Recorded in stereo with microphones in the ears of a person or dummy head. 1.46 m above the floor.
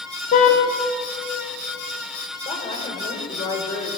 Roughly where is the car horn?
Left.